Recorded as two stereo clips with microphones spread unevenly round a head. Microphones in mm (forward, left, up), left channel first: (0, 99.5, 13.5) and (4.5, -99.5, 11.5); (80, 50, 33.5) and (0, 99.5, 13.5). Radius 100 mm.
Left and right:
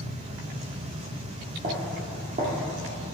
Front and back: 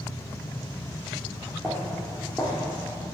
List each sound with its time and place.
1.6 s footsteps: 125° right, 2 m